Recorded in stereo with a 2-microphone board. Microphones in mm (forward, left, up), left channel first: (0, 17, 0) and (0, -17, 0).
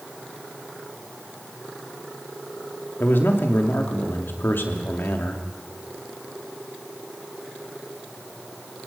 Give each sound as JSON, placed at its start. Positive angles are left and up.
{"t": 3.0, "sound": "a man speaking", "side_deg": 80, "distance_m": 2.5}